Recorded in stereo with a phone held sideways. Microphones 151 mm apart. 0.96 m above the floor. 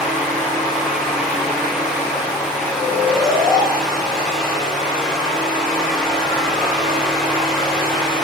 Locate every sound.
0.0 s a fan: centre (ahead or behind), 3.5 m
2.7 s snoring: 20° right (ahead or behind), 3 m